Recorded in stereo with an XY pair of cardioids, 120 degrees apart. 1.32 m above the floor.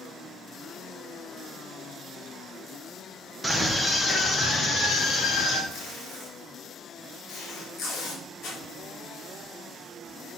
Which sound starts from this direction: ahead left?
Tape being pulled, at 5.7 s.